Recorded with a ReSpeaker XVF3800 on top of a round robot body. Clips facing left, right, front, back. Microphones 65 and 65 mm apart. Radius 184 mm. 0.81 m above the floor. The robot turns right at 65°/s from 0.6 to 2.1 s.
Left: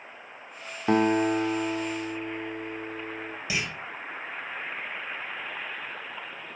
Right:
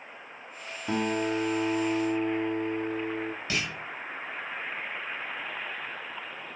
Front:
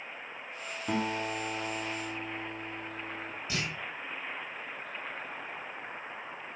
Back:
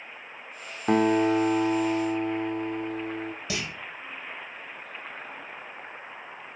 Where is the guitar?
135° left, 0.9 m; by 3.3 s 145° right, 0.9 m.